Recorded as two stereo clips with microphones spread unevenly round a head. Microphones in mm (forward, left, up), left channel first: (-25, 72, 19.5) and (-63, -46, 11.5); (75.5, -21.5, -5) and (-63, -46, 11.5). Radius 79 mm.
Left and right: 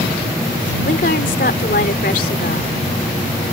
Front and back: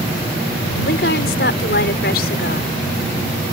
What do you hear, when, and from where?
0.8 s a woman speaking: 35° left